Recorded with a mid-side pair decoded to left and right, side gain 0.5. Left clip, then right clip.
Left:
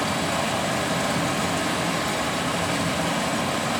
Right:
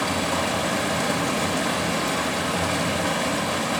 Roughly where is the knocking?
No knocking in this recording.